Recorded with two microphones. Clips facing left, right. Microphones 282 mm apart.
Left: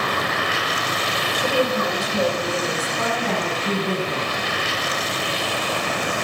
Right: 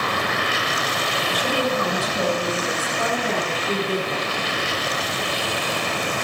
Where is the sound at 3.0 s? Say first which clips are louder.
Even; 90° left, 9 m.